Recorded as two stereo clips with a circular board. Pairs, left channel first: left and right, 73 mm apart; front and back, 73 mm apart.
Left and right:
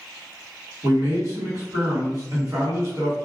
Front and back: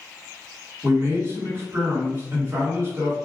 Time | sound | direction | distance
0.8 | a man speaking | 125° right | 1.6 m